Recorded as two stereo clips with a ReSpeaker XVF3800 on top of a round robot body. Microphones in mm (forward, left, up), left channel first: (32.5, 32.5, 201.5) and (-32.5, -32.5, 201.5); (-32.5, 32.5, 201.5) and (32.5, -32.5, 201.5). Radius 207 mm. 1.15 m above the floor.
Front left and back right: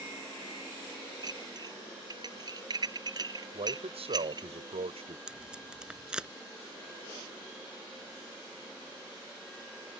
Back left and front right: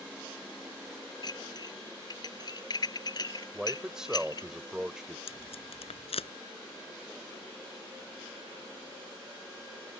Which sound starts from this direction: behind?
Dishes clattering, at 1.2 s.